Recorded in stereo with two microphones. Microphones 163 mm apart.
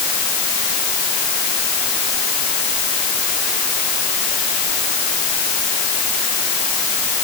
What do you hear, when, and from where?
Only background noise.